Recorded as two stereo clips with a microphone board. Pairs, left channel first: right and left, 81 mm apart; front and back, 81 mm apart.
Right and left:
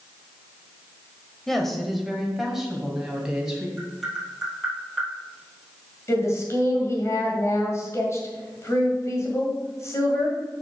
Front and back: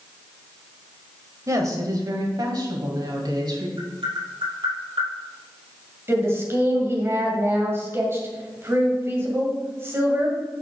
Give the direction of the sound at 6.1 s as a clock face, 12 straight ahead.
4 o'clock.